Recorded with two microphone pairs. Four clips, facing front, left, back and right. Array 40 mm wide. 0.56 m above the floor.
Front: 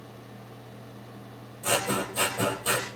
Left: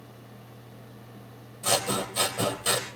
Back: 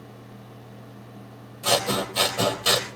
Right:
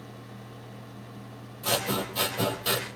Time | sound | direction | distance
1.6 | scissors | 175° left | 3.5 m